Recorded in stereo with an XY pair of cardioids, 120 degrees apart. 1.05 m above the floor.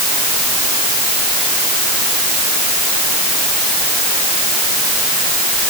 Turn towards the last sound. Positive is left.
No sound to turn to.